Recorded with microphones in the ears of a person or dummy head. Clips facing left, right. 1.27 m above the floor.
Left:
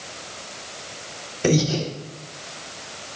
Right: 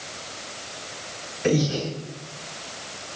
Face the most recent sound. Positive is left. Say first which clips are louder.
# left 2 dB
turn(degrees=70)  # may be behind; listen again after turning